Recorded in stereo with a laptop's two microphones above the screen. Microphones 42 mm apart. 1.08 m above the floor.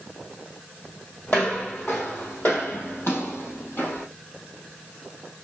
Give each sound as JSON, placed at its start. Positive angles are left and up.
{"t": 1.3, "sound": "footsteps", "side_deg": 45, "distance_m": 2.5}